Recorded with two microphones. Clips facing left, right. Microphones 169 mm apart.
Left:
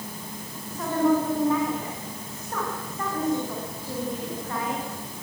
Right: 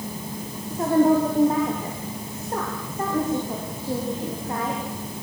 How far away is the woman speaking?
About 6.5 m.